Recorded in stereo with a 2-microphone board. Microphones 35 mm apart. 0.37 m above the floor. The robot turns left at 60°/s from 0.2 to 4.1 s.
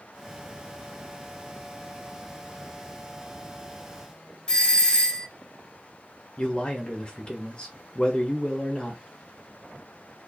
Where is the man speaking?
35° left (ahead or behind), 1.2 m.